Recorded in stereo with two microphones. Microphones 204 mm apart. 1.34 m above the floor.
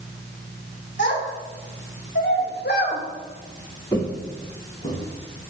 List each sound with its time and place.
1.0 s a child speaking: 60° left (ahead or behind), 3 m; by 3.0 s 50° left (ahead or behind), 1.4 m
3.9 s footsteps: 15° left (ahead or behind), 2.0 m; by 5.5 s 45° left (ahead or behind), 4 m